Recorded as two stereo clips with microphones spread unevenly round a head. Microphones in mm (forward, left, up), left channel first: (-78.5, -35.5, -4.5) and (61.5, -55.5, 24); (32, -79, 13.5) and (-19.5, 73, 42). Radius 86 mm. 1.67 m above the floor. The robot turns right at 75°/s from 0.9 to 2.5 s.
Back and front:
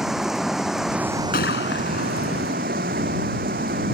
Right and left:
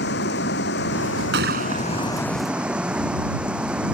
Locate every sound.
0.0 s running water: 95° right; by 4.0 s 25° left
1.3 s a gunshot: 130° left; by 2.6 s 145° right